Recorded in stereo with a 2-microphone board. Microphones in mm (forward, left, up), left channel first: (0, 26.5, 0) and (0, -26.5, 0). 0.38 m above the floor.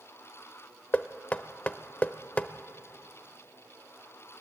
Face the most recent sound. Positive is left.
turn(degrees=25)  # may be behind; listen again after turning